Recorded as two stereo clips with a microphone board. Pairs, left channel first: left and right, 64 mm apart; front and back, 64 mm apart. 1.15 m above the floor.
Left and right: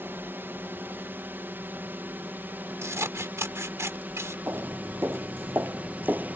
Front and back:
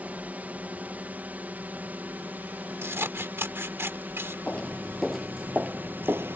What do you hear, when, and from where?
0.0 s a drone: 125° right; by 6.4 s 140° right
2.8 s scissors: 130° right
4.5 s footsteps: 60° right; by 6.4 s 145° right